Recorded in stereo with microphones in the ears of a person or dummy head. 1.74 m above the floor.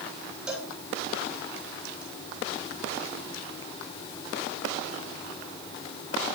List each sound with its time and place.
0.5 s a cowbell: centre (ahead or behind), 10 m